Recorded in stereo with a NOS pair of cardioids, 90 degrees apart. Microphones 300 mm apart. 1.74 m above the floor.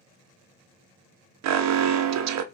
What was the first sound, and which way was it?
An alarm, 65° right.